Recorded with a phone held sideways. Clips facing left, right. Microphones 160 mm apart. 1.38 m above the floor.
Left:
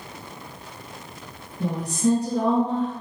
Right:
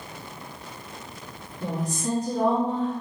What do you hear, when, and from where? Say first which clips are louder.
1.6 s a woman speaking: left 6 dB; 65° left (ahead or behind), 1.8 m